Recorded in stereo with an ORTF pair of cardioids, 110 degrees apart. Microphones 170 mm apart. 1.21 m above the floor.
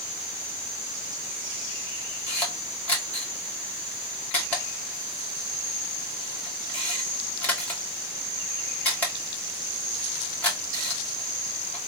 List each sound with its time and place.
2.3 s a camera shutter: 10° left, 1.7 m